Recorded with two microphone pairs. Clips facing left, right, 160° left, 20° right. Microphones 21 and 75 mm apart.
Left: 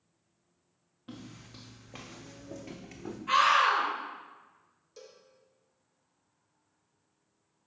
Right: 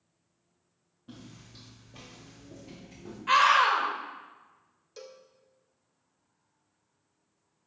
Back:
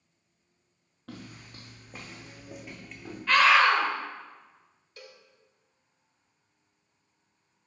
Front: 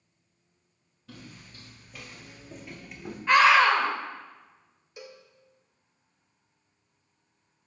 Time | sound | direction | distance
1.1 | footsteps | 135° left | 1.6 m
3.3 | a scream | 80° right | 1.3 m
5.0 | a cowbell | 85° right | 0.6 m